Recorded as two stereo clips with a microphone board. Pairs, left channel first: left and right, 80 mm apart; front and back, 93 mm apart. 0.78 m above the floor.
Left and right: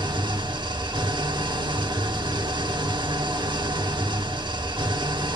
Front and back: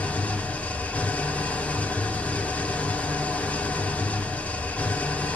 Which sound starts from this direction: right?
An engine running, at 0.0 s.